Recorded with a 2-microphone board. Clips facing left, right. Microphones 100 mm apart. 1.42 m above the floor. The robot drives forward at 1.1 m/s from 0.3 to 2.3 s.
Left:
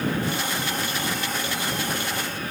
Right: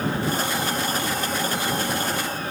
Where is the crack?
No crack in this recording.